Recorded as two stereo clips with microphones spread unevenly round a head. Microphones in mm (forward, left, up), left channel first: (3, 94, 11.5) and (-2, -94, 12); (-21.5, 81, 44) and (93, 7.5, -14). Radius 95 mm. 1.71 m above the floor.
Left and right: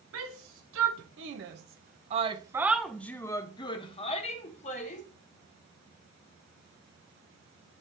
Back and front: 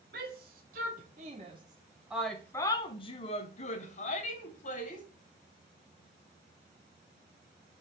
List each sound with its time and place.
0.1 s a shout: 80° right, 1.3 m; by 5.0 s 140° left, 1.6 m